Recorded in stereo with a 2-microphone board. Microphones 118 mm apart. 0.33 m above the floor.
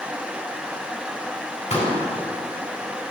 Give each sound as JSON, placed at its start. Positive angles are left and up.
{"t": 1.7, "sound": "a pop", "side_deg": 70, "distance_m": 3.0}